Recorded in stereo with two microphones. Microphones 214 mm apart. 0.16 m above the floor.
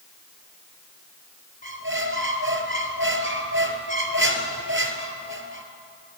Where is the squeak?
70° right (ahead or behind), 1.8 m.